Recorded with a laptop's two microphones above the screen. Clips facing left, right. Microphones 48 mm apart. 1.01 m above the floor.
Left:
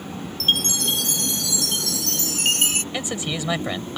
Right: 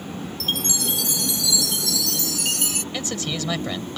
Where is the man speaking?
15° left (ahead or behind).